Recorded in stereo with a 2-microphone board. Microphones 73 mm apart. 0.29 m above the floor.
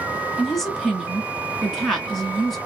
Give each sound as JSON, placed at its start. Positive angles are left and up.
{"t": 0.4, "sound": "a woman speaking", "side_deg": 5, "distance_m": 2.0}